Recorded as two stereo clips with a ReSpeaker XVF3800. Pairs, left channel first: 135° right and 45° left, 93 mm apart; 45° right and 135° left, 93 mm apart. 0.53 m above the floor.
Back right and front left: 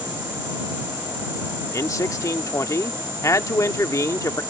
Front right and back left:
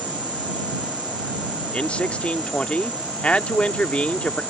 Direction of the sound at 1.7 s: 115° right.